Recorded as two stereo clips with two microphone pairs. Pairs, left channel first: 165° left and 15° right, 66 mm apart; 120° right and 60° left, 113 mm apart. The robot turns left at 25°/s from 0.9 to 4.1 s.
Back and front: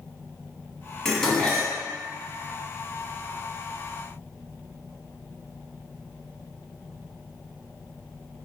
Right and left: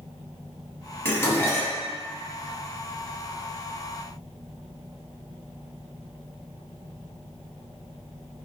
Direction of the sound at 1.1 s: 120° right.